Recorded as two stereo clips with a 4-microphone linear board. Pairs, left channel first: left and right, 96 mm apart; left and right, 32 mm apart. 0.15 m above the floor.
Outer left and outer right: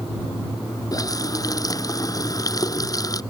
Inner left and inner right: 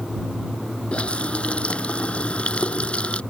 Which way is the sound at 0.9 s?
35° left (ahead or behind).